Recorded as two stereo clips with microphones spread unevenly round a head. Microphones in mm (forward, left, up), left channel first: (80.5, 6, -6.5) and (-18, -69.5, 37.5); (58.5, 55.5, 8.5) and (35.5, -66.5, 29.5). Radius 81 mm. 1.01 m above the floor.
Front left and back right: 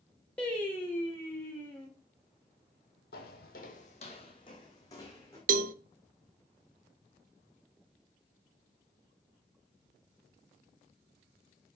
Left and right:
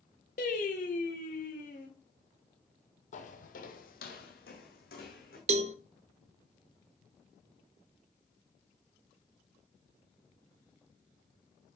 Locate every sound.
0.4 s singing: 120° left, 2.5 m
3.1 s footsteps: 60° left, 1.7 m; by 5.4 s 120° left, 3.5 m
5.5 s a cowbell: 130° right, 0.7 m